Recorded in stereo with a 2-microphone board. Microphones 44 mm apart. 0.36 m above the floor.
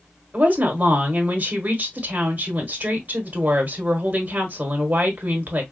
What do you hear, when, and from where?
0.3 s a woman speaking: 40° right (ahead or behind), 1.4 m